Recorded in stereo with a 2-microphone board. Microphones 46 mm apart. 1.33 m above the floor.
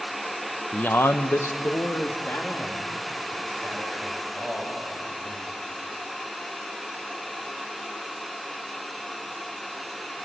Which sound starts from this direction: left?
A man speaking, at 0.7 s.